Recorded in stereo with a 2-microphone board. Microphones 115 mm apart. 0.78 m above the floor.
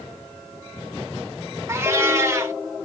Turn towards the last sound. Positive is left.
turn(degrees=-25)  # may be behind; listen again after turning